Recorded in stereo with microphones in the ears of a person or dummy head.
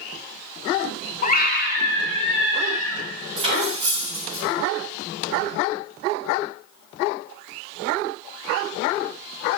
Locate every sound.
1.2 s a scream: 40° left (ahead or behind), 1.0 m; by 3.1 s 80° left, 2 m
3.4 s cutlery clinking: 35° right (ahead or behind), 4.5 m